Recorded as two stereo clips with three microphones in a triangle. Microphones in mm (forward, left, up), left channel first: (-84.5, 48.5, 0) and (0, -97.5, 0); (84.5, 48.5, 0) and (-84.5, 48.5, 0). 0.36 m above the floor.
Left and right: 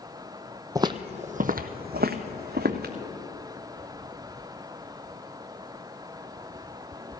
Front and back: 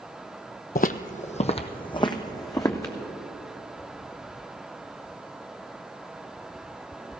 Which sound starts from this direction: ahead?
Footsteps, at 0.8 s.